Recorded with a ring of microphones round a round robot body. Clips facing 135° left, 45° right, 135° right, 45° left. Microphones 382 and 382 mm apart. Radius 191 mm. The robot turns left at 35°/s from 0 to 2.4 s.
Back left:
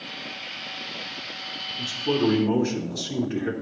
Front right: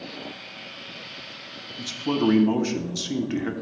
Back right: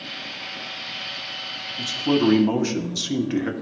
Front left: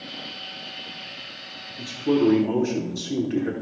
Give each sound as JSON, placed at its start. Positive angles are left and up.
{"t": 1.8, "sound": "a man speaking", "azimuth_deg": -70, "distance_m": 1.0}